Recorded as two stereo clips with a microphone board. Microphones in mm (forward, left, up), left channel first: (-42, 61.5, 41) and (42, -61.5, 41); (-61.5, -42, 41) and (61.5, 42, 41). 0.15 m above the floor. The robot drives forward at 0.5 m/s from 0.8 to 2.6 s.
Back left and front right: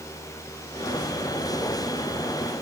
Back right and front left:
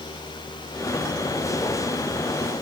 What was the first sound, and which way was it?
Only background noise.